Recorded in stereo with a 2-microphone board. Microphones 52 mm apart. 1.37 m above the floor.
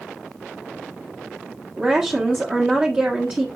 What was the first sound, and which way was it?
A woman speaking, 25° right (ahead or behind).